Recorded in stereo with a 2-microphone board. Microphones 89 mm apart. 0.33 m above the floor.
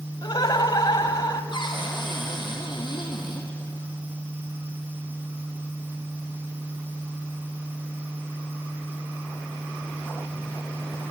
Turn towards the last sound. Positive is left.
turn(degrees=55)  # may be behind; listen again after turning